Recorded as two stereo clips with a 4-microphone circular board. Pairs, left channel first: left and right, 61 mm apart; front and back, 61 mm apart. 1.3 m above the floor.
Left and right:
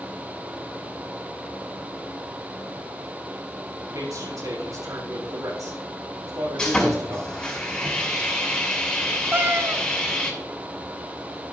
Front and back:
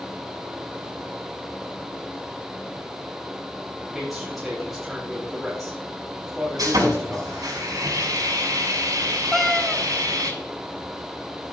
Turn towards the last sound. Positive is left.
turn(degrees=-90)